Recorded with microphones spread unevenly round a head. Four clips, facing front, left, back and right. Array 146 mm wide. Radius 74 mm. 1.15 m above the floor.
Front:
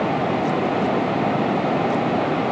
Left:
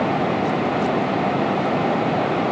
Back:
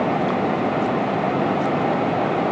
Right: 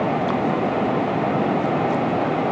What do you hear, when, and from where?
Only background noise.